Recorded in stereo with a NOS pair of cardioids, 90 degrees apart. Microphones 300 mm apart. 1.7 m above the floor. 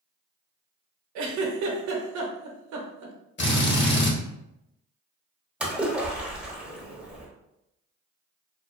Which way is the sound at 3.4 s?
35° left.